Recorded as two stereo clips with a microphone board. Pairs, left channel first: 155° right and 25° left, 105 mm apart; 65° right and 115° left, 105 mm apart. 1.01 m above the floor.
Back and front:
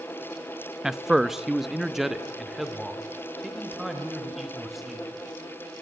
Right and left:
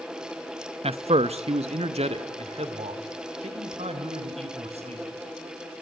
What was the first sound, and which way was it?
A man speaking, 110° left.